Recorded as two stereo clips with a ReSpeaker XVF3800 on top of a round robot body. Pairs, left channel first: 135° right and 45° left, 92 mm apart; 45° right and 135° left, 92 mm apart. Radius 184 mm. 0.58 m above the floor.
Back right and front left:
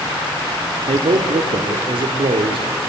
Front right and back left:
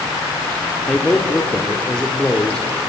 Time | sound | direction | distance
0.9 | a man speaking | 35° left | 1.9 m